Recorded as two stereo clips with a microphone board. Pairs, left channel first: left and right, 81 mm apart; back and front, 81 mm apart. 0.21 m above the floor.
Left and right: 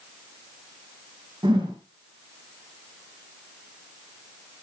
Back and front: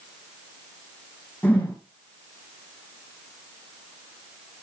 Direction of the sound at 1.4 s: 110° right.